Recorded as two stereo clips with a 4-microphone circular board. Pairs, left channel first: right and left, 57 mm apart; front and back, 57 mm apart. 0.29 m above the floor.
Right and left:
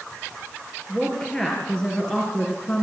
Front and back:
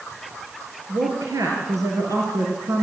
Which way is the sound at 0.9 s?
170° right.